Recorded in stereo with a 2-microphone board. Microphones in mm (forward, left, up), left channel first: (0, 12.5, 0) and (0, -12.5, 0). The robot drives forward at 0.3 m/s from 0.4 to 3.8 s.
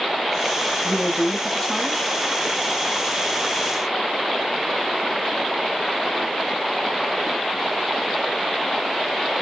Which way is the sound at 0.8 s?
15° left (ahead or behind).